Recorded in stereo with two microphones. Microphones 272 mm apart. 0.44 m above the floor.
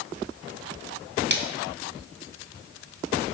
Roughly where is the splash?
Right.